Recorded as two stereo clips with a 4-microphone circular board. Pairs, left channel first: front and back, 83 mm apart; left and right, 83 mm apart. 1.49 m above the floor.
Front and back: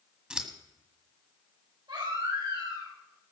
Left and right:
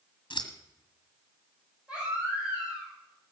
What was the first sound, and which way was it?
Scissors, 100° left.